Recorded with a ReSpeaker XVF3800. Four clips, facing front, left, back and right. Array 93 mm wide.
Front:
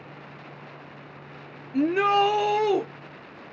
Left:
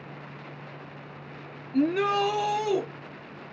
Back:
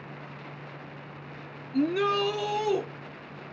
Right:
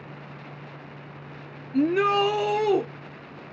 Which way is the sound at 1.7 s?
10° right.